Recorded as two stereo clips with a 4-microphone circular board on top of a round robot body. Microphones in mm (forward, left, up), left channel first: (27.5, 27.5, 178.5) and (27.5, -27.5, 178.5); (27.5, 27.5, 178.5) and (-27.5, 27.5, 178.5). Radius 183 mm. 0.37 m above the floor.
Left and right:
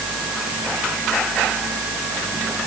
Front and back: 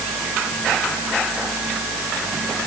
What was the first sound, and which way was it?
Only background noise.